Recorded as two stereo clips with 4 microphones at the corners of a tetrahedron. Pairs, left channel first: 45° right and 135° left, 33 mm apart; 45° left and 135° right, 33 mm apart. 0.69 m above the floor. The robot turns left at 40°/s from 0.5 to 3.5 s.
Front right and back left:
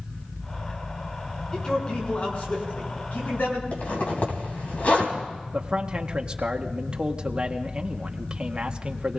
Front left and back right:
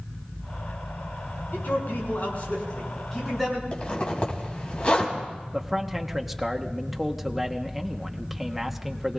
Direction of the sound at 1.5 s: 30° left.